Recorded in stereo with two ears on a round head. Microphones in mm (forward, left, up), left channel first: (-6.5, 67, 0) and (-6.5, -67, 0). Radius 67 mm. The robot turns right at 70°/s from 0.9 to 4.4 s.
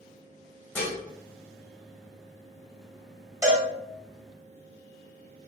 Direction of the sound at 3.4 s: 15° right (ahead or behind).